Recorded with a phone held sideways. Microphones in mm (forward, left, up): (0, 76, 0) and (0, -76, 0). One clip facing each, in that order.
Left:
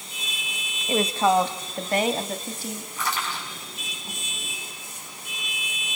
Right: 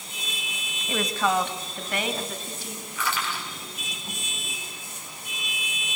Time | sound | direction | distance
0.9 | a woman speaking | 25° left (ahead or behind) | 1.8 m
3.0 | crushing | 40° left (ahead or behind) | 7.5 m